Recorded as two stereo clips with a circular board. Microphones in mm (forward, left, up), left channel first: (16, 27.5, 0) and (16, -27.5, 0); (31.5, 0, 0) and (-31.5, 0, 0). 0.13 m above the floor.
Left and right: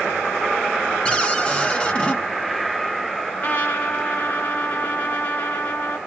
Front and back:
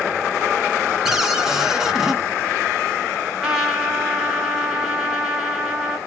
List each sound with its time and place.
1.1 s a cupboard door: 120° left, 1.2 m
3.4 s a trumpet: 110° left, 1.4 m